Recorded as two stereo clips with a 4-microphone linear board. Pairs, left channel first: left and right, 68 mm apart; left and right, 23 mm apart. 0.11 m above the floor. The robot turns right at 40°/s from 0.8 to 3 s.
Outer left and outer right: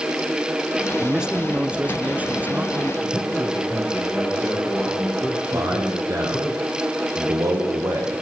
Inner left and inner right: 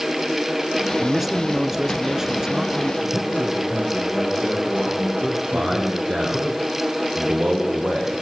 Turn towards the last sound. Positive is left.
turn(degrees=-45)  # may be behind; listen again after turning